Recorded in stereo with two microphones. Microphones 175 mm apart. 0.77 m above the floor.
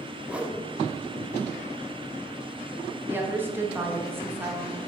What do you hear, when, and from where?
0.3 s a whoosh: 5° right (ahead or behind), 0.8 m
3.1 s a woman speaking: 10° right (ahead or behind), 1.1 m